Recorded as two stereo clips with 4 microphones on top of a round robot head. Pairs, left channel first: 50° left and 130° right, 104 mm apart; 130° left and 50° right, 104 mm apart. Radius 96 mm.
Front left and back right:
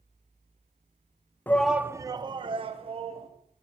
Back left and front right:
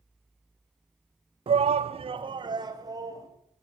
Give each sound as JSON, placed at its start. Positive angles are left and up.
{"t": 1.5, "sound": "a shout", "azimuth_deg": -20, "distance_m": 0.6}